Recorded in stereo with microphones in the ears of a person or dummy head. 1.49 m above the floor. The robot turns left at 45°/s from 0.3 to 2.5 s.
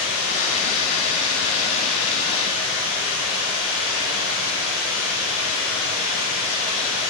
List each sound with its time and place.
0.0 s running water: 75° left, 1.3 m; by 7.1 s 25° right, 1.3 m